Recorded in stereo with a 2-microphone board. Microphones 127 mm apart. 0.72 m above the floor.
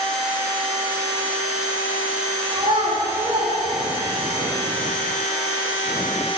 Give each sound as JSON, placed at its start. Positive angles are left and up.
{"t": 2.5, "sound": "a child speaking", "side_deg": -45, "distance_m": 4.0}